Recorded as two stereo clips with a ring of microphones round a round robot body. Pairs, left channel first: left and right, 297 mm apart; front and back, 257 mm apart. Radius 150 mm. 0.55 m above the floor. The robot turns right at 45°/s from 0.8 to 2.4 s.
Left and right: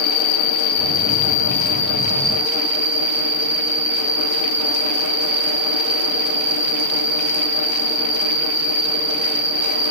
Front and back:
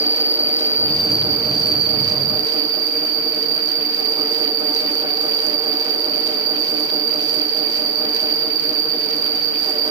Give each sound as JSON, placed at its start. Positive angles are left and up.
{"t": 0.0, "sound": "an insect", "azimuth_deg": 115, "distance_m": 2.5}